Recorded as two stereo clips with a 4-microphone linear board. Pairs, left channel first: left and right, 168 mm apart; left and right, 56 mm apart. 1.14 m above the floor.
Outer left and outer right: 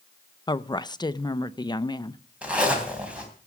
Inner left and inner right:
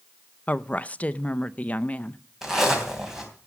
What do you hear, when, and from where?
0.5 s a woman speaking: 25° left (ahead or behind), 0.5 m
2.4 s a zipper: 5° right (ahead or behind), 3 m